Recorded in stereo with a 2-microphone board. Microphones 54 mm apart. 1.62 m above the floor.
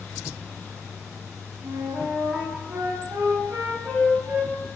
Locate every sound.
1.6 s a flute: 40° right (ahead or behind), 0.6 m